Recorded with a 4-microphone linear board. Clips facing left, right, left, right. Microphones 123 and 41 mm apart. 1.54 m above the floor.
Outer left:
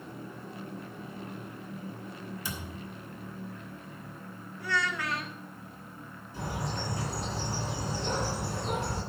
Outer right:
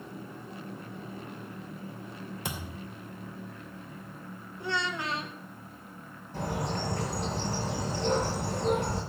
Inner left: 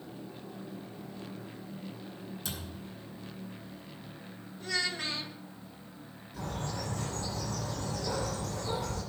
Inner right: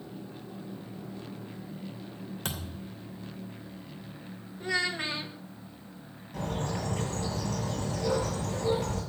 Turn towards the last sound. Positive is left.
turn(degrees=-70)  # may be behind; listen again after turning